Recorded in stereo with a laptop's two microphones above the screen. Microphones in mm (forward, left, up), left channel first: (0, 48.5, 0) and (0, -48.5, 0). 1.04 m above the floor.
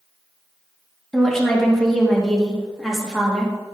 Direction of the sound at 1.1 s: 5° left (ahead or behind).